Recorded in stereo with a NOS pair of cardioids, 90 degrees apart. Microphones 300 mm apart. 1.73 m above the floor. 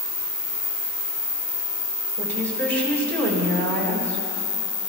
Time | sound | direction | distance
2.2 | a woman speaking | 40° right | 5.5 m